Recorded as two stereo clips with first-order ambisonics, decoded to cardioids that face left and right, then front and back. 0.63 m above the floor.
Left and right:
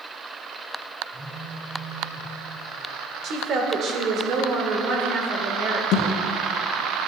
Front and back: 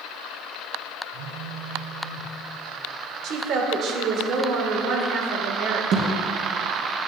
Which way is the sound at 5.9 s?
130° left.